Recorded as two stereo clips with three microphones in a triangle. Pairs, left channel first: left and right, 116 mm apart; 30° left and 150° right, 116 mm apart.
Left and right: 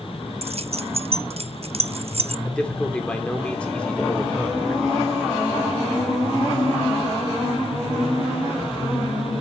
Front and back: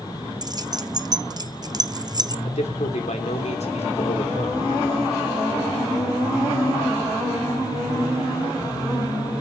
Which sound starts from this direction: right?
Keys jangling, at 0.4 s.